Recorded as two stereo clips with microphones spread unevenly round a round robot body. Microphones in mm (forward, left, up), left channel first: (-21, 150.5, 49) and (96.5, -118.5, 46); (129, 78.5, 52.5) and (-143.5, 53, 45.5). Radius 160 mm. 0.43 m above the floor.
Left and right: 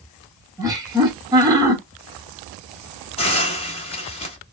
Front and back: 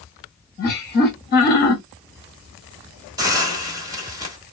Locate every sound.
0.6 s laughter: straight ahead, 1.6 m
3.2 s a hiss: 140° left, 1.2 m